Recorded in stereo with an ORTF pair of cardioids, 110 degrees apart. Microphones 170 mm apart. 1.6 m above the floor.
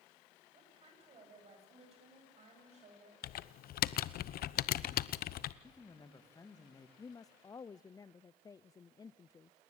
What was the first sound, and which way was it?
A woman speaking, 35° right.